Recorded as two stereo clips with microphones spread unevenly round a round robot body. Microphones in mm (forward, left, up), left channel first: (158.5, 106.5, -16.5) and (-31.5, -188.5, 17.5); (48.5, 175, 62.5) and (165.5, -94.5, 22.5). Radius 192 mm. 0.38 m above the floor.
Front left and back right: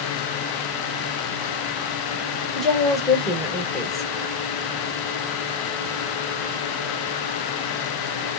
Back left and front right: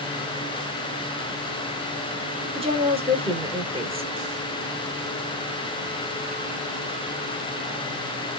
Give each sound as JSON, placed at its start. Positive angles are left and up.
{"t": 2.5, "sound": "a woman speaking", "azimuth_deg": -25, "distance_m": 1.5}